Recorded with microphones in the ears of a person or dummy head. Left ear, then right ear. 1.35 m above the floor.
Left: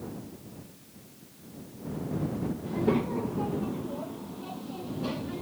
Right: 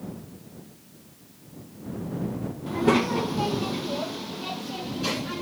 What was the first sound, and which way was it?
A child speaking, 30° right (ahead or behind).